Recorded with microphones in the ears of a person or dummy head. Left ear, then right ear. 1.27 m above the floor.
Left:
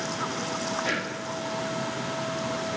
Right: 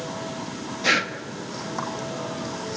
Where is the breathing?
40° right (ahead or behind), 1.7 m.